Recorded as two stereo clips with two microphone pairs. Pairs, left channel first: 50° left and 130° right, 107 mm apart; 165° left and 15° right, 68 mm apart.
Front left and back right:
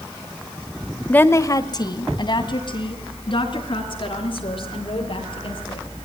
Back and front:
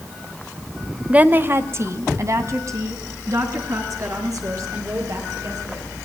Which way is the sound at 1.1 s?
5° left.